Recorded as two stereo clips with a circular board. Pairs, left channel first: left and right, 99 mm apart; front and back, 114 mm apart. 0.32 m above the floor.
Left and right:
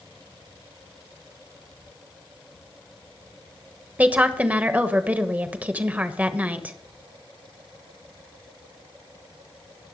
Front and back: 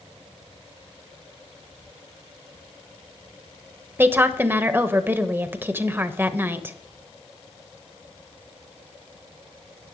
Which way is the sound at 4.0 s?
145° right.